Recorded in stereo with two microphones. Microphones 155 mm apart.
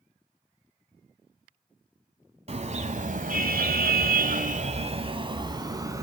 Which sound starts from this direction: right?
A car horn, at 2.5 s.